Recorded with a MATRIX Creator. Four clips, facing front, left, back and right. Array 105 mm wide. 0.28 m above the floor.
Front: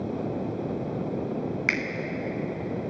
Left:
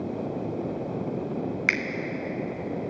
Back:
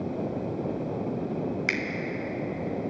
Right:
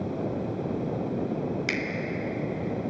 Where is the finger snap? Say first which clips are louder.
Left 1 dB, front 1 dB; 70° left, 1.3 m.